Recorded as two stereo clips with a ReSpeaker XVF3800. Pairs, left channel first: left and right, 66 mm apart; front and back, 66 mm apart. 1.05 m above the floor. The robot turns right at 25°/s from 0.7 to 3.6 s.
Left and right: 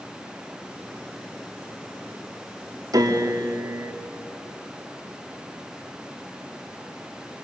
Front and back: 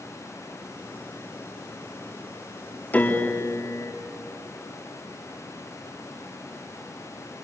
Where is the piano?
65° right, 3 m; by 3.9 s 50° right, 3 m.